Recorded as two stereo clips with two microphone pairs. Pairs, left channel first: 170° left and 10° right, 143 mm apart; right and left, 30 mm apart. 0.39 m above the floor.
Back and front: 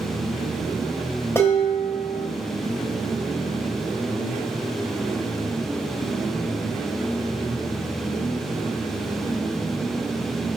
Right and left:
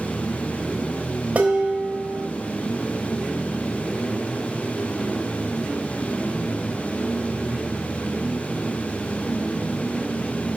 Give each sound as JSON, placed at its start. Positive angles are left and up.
{"t": 1.4, "sound": "dishes clattering", "azimuth_deg": 105, "distance_m": 1.1}